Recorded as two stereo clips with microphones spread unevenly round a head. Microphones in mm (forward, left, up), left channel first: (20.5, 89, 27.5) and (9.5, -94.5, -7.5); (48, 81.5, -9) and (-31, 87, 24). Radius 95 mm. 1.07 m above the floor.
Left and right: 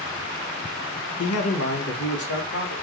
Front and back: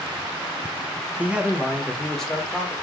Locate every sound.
1.2 s a man speaking: 95° left, 0.6 m; by 2.7 s 75° left, 1.4 m